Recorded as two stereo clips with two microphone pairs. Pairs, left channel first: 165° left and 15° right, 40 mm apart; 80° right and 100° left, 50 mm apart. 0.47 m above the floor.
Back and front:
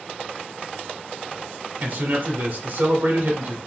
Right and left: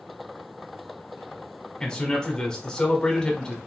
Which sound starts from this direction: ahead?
A man speaking, at 1.8 s.